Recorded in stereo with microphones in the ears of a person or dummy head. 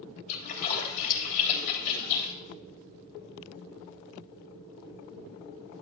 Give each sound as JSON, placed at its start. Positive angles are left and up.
{"t": 0.3, "sound": "a splash", "side_deg": 45, "distance_m": 3.0}